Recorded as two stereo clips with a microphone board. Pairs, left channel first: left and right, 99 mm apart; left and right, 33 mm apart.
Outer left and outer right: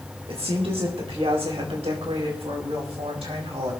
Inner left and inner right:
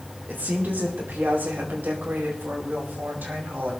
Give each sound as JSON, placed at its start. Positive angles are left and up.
{"t": 0.3, "sound": "a woman speaking", "side_deg": -70, "distance_m": 4.0}